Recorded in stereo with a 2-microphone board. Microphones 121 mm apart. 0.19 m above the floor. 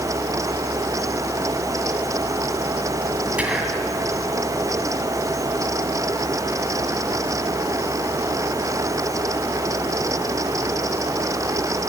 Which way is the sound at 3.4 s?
10° right (ahead or behind).